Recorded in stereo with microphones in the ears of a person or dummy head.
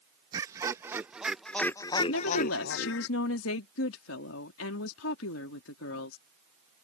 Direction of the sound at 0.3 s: 25° right (ahead or behind).